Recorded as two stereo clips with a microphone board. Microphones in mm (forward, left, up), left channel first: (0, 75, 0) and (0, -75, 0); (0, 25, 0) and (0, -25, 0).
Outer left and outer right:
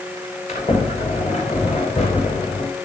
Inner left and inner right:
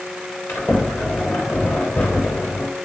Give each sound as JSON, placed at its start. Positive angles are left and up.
{"t": 0.5, "sound": "a sliding door", "side_deg": 45, "distance_m": 4.0}